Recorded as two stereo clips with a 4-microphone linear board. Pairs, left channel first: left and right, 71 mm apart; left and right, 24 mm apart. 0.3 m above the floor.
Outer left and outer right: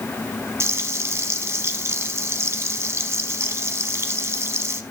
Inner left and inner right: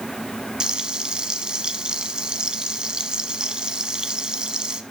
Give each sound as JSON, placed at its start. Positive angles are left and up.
{"t": 0.6, "sound": "frying", "side_deg": -40, "distance_m": 1.0}